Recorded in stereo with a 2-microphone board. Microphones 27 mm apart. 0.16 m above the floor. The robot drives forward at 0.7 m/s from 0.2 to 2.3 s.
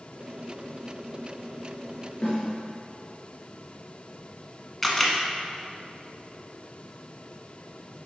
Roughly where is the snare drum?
Left.